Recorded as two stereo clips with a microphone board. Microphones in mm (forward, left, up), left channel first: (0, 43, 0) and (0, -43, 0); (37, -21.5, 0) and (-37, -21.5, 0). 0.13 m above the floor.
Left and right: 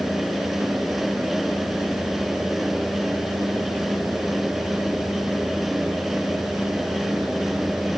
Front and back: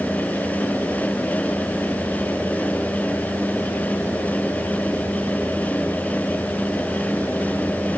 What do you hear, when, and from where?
Only background noise.